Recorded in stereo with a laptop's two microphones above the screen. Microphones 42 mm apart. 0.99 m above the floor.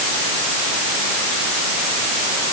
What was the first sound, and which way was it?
Only background noise.